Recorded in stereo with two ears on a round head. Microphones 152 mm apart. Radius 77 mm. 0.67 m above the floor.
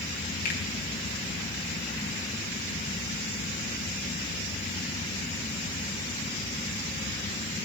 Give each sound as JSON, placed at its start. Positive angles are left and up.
{"t": 0.5, "sound": "a finger snap", "side_deg": 65, "distance_m": 4.0}